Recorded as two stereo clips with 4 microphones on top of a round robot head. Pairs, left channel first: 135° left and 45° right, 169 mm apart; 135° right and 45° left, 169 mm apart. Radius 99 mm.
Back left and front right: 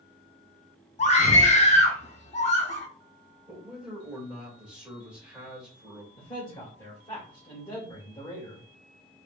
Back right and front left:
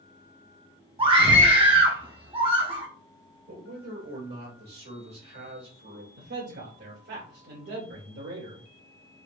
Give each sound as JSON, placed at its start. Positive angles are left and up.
{"t": 1.0, "sound": "a scream", "azimuth_deg": 95, "distance_m": 1.8}
{"t": 3.5, "sound": "a man speaking", "azimuth_deg": 40, "distance_m": 2.5}
{"t": 6.2, "sound": "a man speaking", "azimuth_deg": 65, "distance_m": 2.5}